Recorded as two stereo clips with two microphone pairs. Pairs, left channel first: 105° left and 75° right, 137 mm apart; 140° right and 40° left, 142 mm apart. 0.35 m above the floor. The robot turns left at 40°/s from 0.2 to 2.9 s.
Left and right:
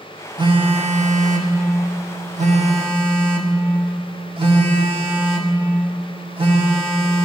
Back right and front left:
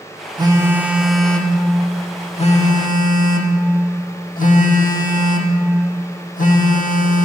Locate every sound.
0.4 s a phone buzzing: 20° right, 0.6 m; by 7.2 s 120° right, 0.6 m